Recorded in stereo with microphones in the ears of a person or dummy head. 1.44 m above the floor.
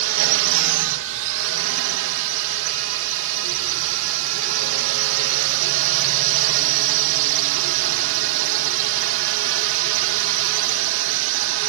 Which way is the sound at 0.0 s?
65° right (ahead or behind).